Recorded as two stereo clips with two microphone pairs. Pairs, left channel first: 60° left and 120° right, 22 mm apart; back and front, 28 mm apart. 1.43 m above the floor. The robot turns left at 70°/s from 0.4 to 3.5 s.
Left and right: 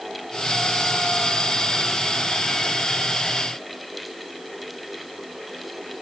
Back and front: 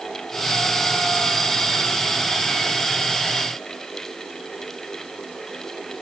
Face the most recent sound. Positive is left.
No sound to turn to.